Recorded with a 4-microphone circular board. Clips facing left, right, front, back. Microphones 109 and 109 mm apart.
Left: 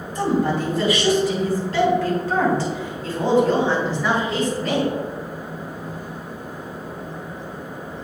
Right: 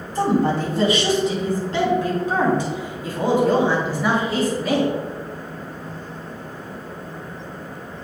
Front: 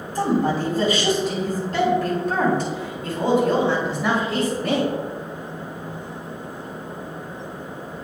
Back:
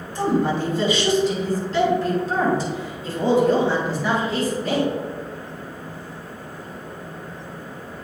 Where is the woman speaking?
40° right, 3 m; by 4.9 s 5° right, 5.5 m.